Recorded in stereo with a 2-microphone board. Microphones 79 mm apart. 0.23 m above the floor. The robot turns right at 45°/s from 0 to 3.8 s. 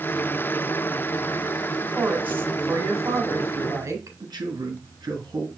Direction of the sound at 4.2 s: 60° right (ahead or behind).